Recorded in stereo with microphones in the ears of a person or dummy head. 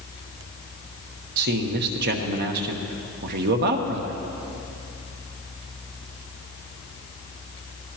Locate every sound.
1.4 s a man speaking: 55° right (ahead or behind), 1.3 m